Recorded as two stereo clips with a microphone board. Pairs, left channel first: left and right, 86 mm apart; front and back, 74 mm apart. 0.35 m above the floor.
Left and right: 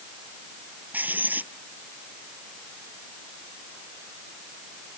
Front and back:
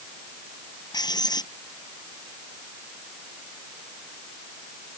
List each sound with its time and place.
0.9 s writing: 20° right